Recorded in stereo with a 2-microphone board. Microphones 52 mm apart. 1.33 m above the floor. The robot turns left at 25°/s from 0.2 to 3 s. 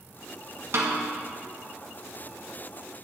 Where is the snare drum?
55° right (ahead or behind), 1.2 m; by 1.0 s 60° right (ahead or behind), 1.2 m.